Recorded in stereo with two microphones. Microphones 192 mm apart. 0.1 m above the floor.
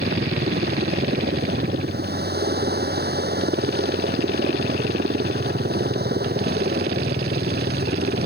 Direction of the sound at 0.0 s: 55° right (ahead or behind).